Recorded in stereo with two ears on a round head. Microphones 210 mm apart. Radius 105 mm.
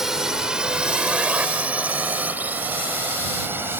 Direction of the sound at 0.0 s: Centre (ahead or behind).